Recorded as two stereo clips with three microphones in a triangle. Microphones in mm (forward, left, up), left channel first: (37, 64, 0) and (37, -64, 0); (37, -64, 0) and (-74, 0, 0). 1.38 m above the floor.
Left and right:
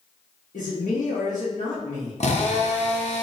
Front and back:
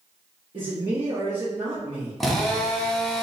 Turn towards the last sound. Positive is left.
turn(degrees=60)